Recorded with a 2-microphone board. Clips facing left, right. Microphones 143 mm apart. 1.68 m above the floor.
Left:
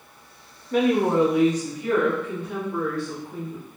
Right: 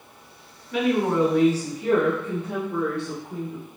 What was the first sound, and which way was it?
A woman speaking, 45° left (ahead or behind).